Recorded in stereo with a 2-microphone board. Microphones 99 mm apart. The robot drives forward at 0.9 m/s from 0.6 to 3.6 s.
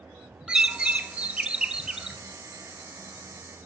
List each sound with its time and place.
0.5 s a bird: 10° right (ahead or behind), 0.7 m; by 2.2 s 5° right (ahead or behind), 1.1 m